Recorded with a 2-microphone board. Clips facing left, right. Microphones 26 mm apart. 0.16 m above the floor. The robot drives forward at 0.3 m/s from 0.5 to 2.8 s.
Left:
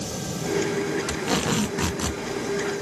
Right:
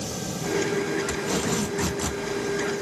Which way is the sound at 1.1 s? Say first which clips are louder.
Left 1 dB; 55° left (ahead or behind).